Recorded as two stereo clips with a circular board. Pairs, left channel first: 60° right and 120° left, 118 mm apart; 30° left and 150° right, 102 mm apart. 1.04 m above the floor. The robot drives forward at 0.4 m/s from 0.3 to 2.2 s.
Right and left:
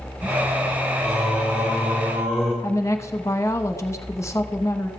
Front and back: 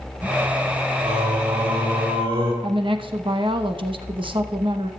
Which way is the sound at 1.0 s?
160° right.